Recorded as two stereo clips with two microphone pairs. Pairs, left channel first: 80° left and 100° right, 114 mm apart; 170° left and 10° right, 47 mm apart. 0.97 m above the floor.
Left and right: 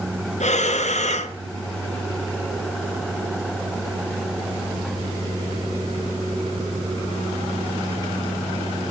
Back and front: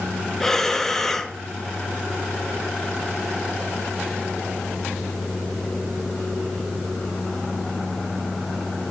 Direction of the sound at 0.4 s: 90° left.